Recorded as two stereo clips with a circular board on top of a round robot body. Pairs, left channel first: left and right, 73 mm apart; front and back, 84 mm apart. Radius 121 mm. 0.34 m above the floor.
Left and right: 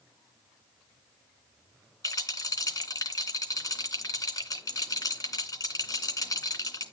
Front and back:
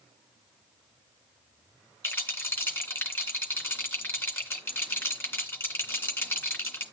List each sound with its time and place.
2.0 s a rattle: 65° left, 3 m